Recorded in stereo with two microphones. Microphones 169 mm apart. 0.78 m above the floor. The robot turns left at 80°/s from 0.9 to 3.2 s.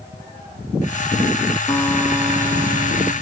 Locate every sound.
1.7 s a guitar: 25° left, 1.4 m; by 3.1 s 90° right, 1.4 m